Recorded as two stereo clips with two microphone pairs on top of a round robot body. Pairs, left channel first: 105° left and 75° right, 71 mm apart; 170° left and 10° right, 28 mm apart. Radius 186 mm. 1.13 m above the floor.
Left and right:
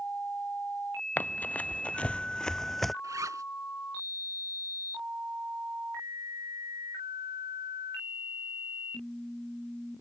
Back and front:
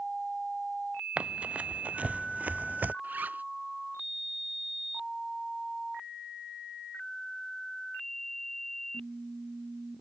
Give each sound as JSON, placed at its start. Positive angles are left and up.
{"t": 1.2, "sound": "running footsteps", "azimuth_deg": 40}
{"t": 3.0, "sound": "a zipper", "azimuth_deg": -30}